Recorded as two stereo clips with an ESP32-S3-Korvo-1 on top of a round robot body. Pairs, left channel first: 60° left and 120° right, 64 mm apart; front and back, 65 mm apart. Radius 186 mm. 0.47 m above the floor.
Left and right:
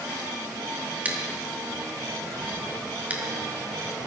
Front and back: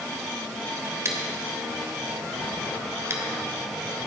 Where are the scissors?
175° right, 1.7 m.